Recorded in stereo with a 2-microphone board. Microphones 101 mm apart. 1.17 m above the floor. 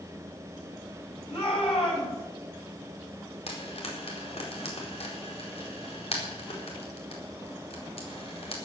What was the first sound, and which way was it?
A shout, 80° left.